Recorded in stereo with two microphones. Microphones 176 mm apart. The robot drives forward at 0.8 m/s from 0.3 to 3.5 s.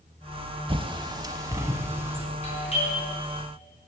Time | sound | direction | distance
0.7 | a bird | 30° right (ahead or behind) | 0.6 m
2.4 | a doorbell | 35° left (ahead or behind) | 4 m